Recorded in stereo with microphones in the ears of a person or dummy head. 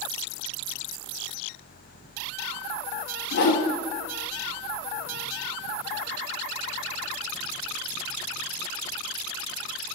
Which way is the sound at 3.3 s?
60° left (ahead or behind).